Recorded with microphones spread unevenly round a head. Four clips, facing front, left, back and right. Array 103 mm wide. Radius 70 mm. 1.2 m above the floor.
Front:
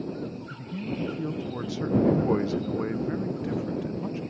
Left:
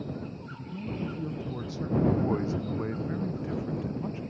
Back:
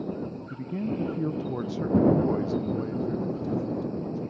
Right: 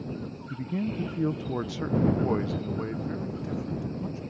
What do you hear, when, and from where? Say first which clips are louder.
0.5 s a man speaking: right 9 dB, back 3 dB; 115° right; by 4.2 s 10° left